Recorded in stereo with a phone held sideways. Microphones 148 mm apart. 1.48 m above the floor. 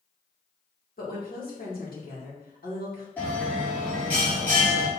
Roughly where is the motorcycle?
I don't hear a motorcycle.